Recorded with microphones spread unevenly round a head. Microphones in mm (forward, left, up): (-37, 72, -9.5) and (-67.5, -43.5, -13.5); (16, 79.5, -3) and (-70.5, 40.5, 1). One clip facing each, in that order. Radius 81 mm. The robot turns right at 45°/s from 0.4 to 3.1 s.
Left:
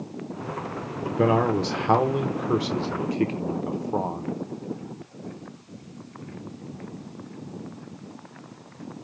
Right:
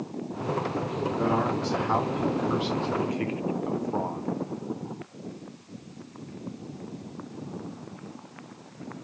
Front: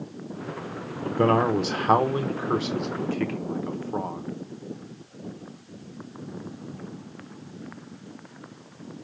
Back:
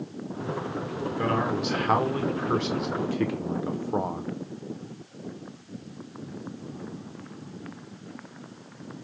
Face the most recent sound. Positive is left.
turn(degrees=130)